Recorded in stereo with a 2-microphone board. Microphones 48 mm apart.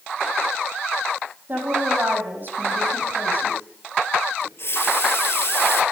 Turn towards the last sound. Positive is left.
turn(degrees=60)  # may be behind; listen again after turning